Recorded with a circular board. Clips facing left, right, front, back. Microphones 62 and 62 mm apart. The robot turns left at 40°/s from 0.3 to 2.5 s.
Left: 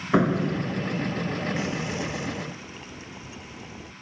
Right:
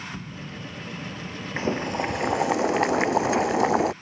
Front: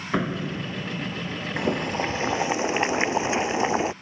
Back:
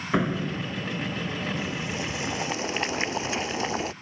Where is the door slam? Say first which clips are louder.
Left 15 dB, back 1 dB; 90° left; by 1.4 s 45° left.